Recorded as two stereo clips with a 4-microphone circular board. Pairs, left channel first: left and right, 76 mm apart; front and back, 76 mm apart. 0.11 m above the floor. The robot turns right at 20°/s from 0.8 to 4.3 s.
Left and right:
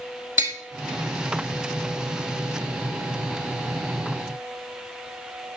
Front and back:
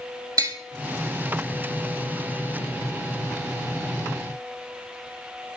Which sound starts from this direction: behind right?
Tapping, at 0.4 s.